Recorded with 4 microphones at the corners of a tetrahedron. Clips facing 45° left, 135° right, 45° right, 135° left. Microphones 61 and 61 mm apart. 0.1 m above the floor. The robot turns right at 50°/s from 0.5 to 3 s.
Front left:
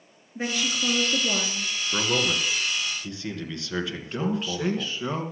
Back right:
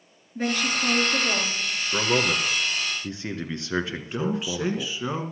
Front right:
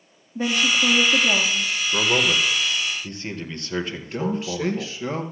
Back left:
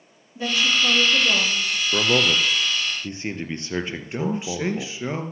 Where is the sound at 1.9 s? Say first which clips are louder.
Back right 2 dB, back left 1 dB; 130° left, 1.5 m; by 4.9 s 175° right, 1.5 m.